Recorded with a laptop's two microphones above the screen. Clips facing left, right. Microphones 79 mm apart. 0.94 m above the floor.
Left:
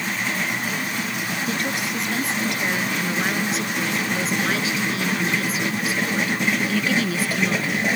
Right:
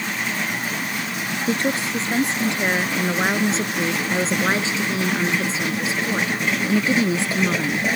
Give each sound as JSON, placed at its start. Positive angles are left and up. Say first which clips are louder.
{"t": 1.5, "sound": "a woman speaking", "louder": "right 6 dB", "side_deg": -30}